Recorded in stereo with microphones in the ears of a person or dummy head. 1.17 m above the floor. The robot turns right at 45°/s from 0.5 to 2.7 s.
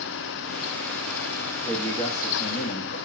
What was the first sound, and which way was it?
A man speaking, straight ahead.